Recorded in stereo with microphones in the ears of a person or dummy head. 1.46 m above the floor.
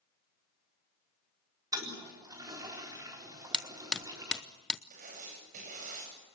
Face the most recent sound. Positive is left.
turn(degrees=-50)  # may be behind; listen again after turning